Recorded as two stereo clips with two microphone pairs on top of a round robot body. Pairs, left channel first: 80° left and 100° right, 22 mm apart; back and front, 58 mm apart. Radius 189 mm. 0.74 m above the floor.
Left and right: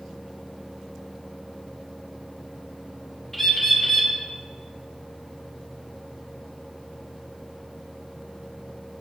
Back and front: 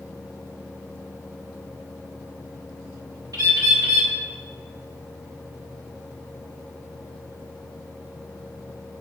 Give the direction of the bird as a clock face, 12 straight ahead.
12 o'clock.